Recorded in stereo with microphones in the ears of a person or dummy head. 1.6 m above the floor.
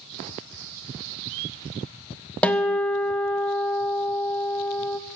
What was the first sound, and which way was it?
A guitar, 5° left (ahead or behind).